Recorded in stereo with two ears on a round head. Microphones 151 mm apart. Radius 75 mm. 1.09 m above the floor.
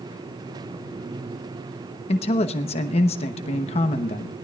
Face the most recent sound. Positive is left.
turn(degrees=40)  # may be behind; listen again after turning